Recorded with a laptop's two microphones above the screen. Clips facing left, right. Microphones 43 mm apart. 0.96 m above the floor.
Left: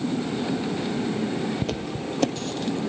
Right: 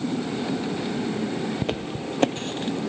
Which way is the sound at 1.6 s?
25° right (ahead or behind).